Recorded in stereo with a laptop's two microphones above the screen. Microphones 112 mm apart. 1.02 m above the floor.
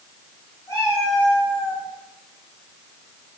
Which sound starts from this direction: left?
A cat meowing, at 0.7 s.